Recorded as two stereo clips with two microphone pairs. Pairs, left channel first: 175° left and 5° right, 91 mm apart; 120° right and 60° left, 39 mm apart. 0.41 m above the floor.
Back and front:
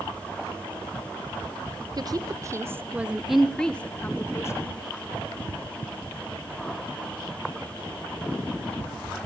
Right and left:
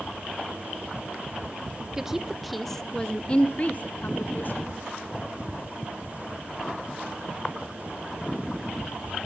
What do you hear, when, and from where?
2.0 s a woman speaking: 5° right, 1.0 m; by 4.8 s 140° right, 1.3 m